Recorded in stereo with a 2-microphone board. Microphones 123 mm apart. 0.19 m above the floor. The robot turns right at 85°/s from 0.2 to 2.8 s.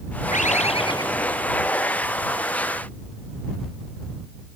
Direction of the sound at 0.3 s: 90° left.